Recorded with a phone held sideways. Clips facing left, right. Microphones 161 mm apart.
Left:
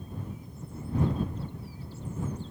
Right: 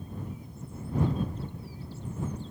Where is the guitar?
No guitar in this recording.